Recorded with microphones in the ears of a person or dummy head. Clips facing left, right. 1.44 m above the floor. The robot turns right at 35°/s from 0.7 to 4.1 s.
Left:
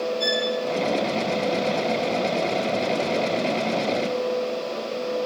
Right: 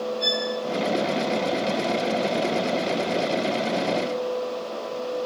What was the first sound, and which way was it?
A violin, 55° left (ahead or behind).